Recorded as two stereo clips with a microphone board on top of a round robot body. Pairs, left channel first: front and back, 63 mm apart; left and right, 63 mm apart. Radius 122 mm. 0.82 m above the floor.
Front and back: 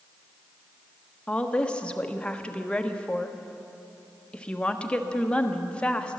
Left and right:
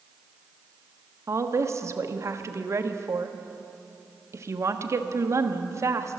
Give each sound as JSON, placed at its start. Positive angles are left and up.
{"t": 1.3, "sound": "a woman speaking", "azimuth_deg": -70, "distance_m": 1.3}